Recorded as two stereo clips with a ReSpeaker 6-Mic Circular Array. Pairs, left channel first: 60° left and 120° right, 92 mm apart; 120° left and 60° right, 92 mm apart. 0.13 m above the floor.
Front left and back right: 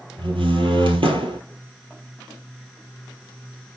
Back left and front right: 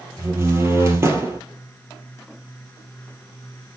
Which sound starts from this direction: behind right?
A door slam, at 0.2 s.